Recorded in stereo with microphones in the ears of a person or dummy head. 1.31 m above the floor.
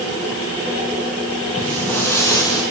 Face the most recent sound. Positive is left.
turn(degrees=20)  # may be behind; listen again after turning